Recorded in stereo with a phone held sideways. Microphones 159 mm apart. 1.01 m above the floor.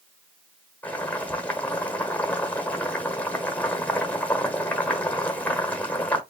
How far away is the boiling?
About 1.1 m.